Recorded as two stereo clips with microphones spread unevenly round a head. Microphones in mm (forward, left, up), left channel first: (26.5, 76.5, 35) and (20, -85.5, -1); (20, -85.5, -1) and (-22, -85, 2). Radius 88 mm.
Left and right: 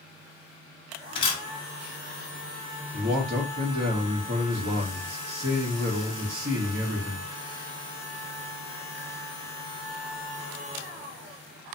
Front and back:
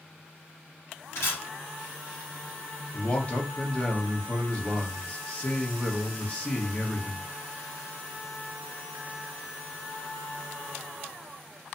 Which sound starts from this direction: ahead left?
A camera shutter, at 1.1 s.